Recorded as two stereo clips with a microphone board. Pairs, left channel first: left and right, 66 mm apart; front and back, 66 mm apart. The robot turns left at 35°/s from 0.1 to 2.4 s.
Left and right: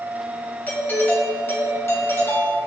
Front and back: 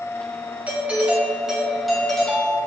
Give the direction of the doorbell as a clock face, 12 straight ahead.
8 o'clock.